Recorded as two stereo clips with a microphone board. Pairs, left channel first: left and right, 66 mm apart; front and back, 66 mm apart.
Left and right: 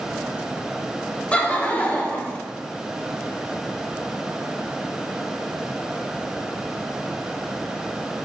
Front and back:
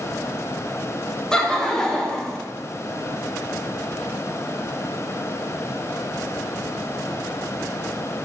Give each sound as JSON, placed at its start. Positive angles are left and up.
{"t": 1.3, "sound": "laughter", "azimuth_deg": 55, "distance_m": 0.6}